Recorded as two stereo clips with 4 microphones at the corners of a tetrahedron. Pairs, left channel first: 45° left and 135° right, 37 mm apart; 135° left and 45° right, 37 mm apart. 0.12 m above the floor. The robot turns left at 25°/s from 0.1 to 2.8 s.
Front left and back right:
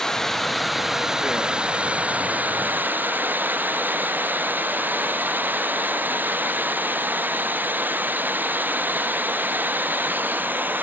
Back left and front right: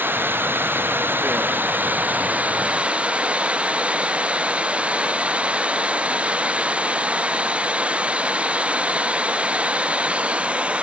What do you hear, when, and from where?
0.0 s running water: 30° right; by 10.8 s 100° right